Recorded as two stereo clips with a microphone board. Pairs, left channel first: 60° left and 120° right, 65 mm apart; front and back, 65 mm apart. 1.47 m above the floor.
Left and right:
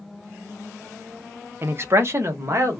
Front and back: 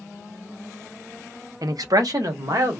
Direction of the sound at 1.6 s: 170° right.